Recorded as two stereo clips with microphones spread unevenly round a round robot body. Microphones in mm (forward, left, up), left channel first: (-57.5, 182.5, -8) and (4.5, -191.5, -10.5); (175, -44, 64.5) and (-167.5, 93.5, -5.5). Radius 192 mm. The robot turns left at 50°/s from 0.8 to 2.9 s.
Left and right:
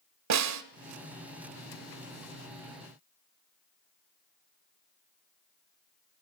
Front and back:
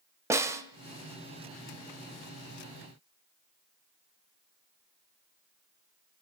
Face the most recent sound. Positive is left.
turn(degrees=130)